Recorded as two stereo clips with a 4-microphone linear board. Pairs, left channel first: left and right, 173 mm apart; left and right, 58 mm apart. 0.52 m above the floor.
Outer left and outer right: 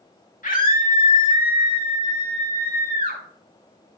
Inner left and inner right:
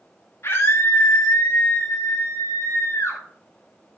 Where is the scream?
55° left (ahead or behind), 3.5 m; by 3.2 s 65° left (ahead or behind), 5 m.